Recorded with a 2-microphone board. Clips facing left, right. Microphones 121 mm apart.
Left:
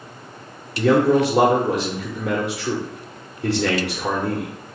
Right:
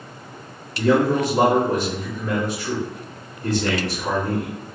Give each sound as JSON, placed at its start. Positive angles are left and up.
{"t": 0.8, "sound": "a man speaking", "side_deg": 85, "distance_m": 0.8}